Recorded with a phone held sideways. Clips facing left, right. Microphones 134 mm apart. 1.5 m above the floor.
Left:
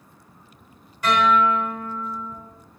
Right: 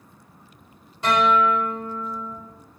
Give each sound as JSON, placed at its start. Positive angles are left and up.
{"t": 1.0, "sound": "a guitar", "side_deg": -25, "distance_m": 3.0}